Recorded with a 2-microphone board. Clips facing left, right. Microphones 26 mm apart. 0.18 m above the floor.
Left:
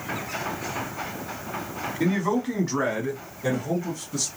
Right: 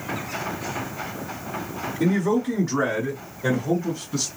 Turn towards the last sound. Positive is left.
turn(degrees=-15)  # may be behind; listen again after turning